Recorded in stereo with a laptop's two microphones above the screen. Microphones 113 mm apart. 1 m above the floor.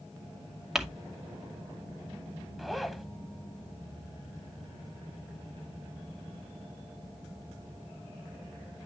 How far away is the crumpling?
About 2 m.